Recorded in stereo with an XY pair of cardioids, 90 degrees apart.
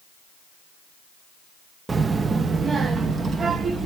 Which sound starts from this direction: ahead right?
A child speaking, at 1.9 s.